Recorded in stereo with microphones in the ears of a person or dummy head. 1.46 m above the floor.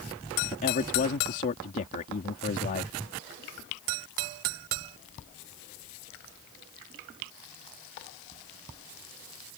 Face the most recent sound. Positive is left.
turn(degrees=40)  # may be behind; listen again after turning